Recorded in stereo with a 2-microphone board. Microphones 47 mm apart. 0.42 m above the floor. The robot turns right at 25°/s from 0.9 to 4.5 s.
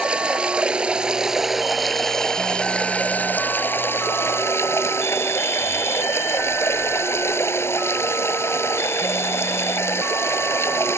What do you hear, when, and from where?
0.0 s running water: 20° right; by 11.0 s 70° left